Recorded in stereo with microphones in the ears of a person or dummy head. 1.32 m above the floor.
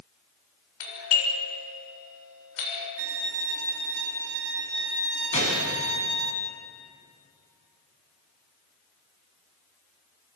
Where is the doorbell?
85° left, 8 m.